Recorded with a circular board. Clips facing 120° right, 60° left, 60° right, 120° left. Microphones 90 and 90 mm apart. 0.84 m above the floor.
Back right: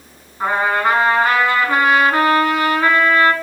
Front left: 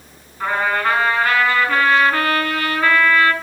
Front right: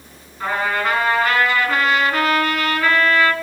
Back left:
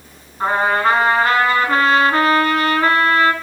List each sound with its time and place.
0.4 s a trumpet: 175° left, 3.5 m